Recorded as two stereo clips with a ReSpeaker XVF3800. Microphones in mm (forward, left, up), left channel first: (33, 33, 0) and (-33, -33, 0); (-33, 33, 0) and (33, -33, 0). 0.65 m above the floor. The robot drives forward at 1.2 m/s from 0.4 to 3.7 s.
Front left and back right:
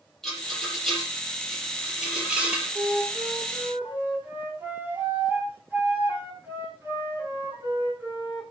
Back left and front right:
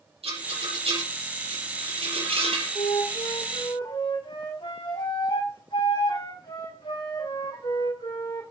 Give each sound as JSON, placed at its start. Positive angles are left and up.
{"t": 0.2, "sound": "a rattle", "azimuth_deg": -40, "distance_m": 8.0}
{"t": 2.8, "sound": "a flute", "azimuth_deg": 150, "distance_m": 9.0}